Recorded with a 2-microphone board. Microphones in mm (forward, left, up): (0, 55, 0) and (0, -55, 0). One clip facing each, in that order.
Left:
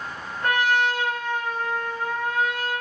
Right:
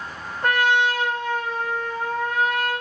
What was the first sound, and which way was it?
A trumpet, 30° right (ahead or behind).